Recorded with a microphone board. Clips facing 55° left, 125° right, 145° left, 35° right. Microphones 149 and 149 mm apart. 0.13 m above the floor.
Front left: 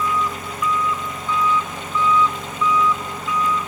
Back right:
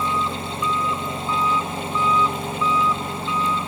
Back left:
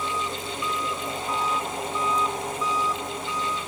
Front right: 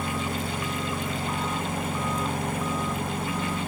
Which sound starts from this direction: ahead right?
An engine running, at 0.0 s.